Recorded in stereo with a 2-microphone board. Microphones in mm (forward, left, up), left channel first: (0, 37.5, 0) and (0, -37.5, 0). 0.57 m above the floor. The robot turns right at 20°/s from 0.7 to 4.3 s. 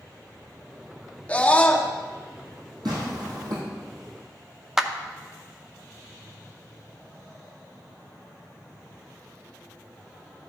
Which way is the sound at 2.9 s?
75° right (ahead or behind).